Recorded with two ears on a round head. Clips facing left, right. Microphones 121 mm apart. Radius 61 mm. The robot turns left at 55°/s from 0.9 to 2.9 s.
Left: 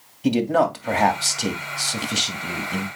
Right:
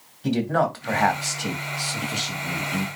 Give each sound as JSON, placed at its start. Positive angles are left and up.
{"t": 0.2, "sound": "a man speaking", "azimuth_deg": 160, "distance_m": 2.5}